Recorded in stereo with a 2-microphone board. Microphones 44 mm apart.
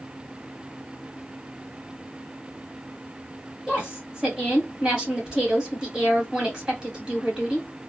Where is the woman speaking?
25° right (ahead or behind), 1.7 m.